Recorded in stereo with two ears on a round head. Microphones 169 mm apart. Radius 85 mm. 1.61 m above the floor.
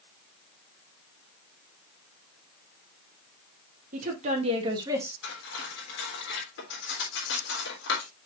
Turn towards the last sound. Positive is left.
turn(degrees=65)  # may be behind; listen again after turning